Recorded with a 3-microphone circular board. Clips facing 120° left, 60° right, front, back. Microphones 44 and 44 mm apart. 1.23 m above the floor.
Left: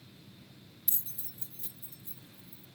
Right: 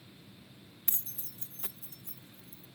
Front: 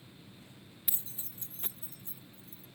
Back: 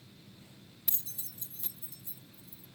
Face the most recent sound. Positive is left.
turn(degrees=-45)